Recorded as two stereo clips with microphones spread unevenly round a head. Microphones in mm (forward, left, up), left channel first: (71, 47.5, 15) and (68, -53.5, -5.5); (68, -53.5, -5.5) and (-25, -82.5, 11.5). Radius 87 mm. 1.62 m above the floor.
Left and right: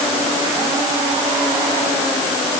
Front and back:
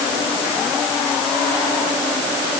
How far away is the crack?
No crack in this recording.